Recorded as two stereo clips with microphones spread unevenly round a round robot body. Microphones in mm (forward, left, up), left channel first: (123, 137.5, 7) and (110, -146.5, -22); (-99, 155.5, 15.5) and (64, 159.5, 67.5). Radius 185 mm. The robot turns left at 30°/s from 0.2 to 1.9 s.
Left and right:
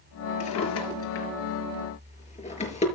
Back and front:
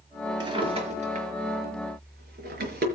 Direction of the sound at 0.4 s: 65° left.